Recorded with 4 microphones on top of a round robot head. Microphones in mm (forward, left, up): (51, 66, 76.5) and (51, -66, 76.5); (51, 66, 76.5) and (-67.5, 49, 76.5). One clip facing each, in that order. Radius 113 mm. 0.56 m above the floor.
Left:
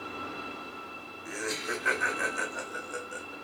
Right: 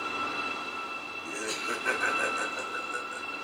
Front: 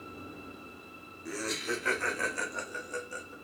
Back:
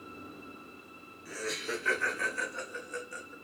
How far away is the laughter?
About 1.6 m.